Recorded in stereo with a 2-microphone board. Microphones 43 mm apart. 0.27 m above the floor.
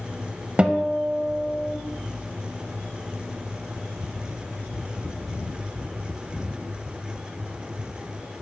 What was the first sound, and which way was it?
A guitar, 25° right (ahead or behind).